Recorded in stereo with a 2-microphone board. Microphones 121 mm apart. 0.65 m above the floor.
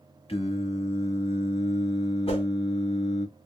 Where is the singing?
55° left (ahead or behind), 0.8 m.